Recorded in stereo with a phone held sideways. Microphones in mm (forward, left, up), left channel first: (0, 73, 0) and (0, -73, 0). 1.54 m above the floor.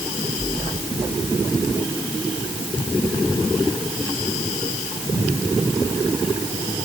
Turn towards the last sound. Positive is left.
No sound to turn to.